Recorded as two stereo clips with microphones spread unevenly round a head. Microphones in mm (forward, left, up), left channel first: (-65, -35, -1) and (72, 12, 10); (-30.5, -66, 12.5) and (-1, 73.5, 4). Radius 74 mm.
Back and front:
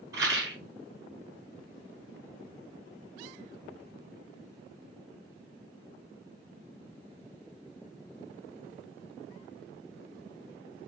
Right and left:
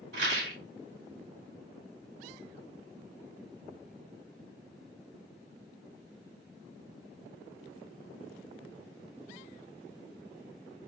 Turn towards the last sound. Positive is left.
turn(degrees=90)